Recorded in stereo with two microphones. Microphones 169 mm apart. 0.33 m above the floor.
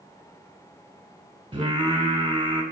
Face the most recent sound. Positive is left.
turn(degrees=-30)  # may be behind; listen again after turning